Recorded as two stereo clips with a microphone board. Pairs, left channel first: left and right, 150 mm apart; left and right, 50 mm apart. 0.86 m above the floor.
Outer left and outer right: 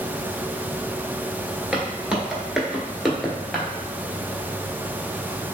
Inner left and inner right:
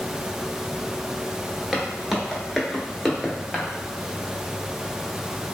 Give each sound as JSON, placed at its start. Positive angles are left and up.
{"t": 1.7, "sound": "footsteps", "side_deg": -5, "distance_m": 0.9}